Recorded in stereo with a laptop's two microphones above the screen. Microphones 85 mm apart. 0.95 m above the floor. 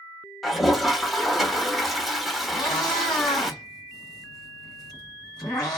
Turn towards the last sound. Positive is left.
turn(degrees=50)  # may be behind; listen again after turning